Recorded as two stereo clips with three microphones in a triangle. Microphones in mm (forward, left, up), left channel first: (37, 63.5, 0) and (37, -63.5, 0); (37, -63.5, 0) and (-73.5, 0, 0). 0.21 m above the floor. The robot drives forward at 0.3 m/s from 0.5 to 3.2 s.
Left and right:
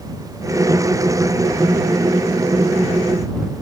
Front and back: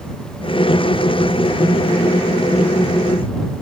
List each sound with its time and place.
Only background noise.